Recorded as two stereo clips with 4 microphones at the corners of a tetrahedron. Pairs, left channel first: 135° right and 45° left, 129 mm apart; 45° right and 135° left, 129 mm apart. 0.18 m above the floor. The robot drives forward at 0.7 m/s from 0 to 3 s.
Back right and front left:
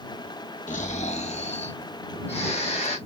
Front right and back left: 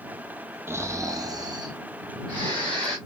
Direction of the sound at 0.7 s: 150° right.